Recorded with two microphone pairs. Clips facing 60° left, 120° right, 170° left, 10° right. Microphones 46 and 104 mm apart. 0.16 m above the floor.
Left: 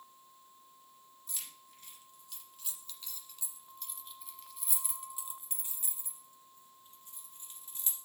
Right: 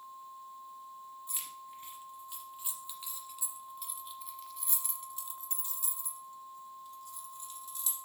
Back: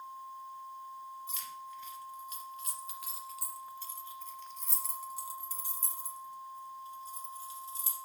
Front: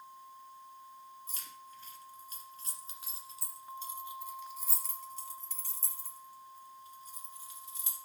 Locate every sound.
1.3 s keys jangling: 60° right, 1.9 m; by 8.0 s 115° left, 2.0 m